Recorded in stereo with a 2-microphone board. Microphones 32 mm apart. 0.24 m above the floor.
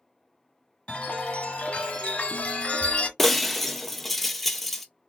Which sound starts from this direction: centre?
Breaking glass, at 3.2 s.